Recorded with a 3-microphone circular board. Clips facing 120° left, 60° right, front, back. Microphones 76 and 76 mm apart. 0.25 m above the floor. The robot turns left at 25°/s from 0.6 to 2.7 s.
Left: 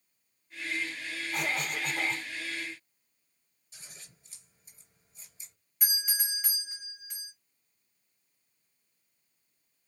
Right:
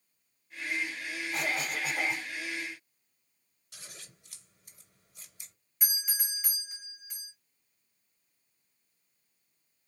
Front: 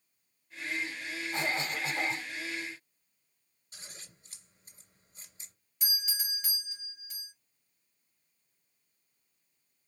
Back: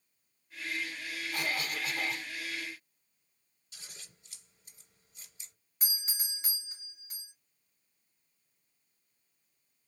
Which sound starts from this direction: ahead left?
A cough, at 1.3 s.